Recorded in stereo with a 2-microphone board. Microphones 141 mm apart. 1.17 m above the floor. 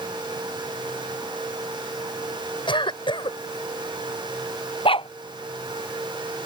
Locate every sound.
2.7 s a cough: 35° left (ahead or behind)
4.8 s a dog barking: 40° left (ahead or behind)